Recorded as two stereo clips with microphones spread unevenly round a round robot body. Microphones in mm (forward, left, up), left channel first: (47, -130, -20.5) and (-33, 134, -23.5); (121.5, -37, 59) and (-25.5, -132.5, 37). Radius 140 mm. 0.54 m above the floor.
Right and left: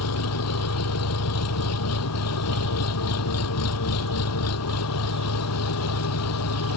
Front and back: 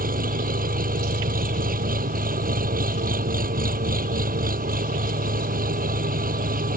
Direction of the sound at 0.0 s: 110° right.